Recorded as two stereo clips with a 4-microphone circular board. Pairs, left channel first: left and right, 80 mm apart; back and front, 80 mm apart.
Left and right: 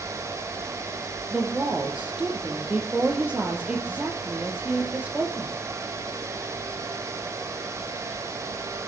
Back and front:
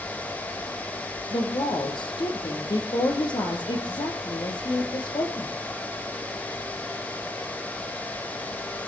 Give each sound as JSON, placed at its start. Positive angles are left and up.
{"t": 1.3, "sound": "a woman speaking", "azimuth_deg": -165, "distance_m": 5.0}